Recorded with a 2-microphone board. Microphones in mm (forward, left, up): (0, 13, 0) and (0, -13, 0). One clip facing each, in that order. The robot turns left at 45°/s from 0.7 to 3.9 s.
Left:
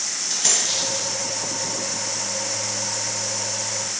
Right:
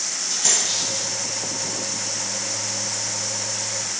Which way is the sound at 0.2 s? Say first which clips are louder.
Even; 25° left (ahead or behind).